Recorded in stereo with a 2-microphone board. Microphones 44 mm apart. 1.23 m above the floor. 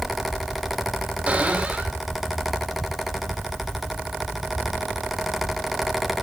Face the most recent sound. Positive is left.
turn(degrees=-25)  # may be behind; listen again after turning